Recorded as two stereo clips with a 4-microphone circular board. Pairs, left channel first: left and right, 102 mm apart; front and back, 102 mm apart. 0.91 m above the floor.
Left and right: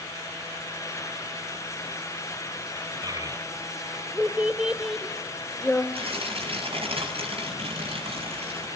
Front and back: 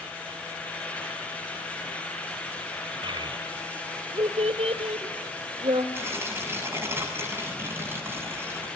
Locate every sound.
3.0 s a child speaking: 140° right, 2.5 m; by 5.8 s 160° left, 2 m
5.9 s tearing paper: 115° right, 7 m